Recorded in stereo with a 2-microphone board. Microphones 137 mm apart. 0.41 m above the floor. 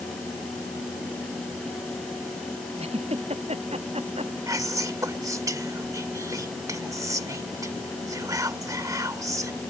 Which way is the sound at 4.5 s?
25° right (ahead or behind).